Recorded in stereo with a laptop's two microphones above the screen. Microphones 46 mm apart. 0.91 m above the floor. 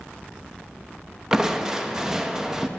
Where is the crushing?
15° right (ahead or behind), 0.6 m.